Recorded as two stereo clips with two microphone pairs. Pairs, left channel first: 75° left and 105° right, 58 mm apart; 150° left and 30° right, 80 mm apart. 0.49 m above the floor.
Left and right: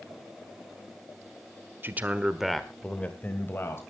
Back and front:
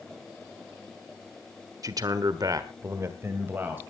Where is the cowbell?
I don't hear a cowbell.